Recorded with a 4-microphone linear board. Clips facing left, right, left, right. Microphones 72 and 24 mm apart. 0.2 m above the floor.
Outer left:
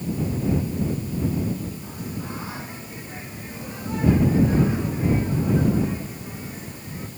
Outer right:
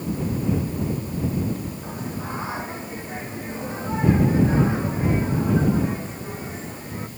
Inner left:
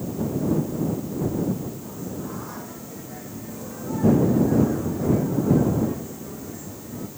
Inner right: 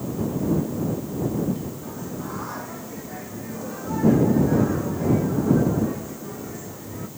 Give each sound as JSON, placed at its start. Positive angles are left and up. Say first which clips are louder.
{"t": 1.8, "sound": "singing", "louder": "outer right 2 dB, inner right 1 dB", "side_deg": -25}